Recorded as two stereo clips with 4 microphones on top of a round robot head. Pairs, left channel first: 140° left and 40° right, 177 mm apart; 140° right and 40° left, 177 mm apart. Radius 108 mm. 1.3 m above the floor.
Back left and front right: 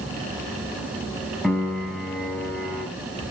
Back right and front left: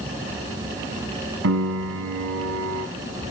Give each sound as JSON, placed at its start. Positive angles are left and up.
{"t": 1.4, "sound": "a piano", "azimuth_deg": 50, "distance_m": 3.0}